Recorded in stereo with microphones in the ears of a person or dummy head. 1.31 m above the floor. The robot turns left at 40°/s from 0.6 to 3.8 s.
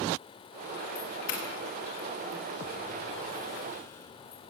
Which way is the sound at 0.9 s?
50° left (ahead or behind).